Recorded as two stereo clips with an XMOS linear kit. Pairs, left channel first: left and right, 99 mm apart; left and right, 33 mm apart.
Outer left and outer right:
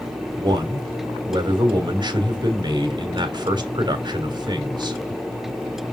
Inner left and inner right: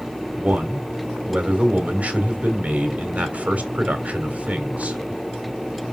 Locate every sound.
0.4 s a man speaking: 50° right (ahead or behind), 2.5 m